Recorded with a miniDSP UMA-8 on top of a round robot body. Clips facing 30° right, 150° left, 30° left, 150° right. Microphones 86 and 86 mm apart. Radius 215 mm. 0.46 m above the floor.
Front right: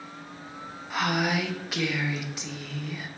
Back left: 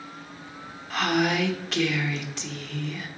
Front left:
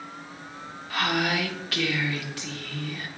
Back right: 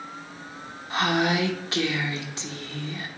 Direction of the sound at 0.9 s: 110° right.